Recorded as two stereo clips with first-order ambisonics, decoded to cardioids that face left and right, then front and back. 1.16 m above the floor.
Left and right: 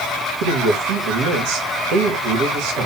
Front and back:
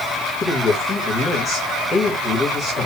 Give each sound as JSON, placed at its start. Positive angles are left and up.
{"t": 0.4, "sound": "a man speaking", "azimuth_deg": -90, "distance_m": 2.0}